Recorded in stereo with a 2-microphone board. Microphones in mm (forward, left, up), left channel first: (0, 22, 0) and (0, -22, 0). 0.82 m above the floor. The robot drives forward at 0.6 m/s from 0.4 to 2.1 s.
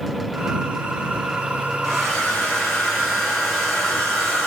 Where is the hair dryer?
5° left (ahead or behind), 2 m.